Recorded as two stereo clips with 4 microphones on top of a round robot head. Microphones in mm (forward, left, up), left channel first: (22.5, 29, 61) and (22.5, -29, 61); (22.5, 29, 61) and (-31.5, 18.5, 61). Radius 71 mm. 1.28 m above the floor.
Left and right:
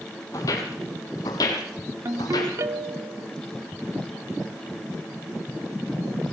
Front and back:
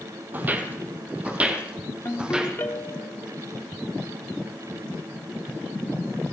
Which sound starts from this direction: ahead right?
A ringtone, at 2.0 s.